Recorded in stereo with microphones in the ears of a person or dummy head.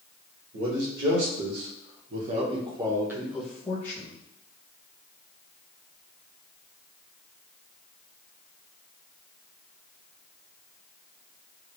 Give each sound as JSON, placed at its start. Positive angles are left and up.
{"t": 0.5, "sound": "a man speaking", "side_deg": -80, "distance_m": 1.5}